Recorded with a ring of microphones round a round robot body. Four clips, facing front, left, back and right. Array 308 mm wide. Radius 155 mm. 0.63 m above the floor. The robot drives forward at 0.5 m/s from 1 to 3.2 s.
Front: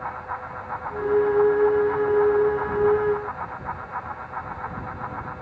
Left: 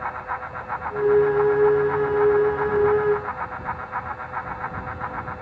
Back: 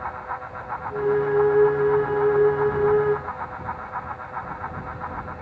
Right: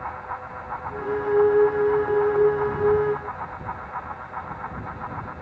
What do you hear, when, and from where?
Only background noise.